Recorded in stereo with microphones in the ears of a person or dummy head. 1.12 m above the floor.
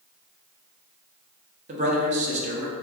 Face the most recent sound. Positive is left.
turn(degrees=-40)  # may be behind; listen again after turning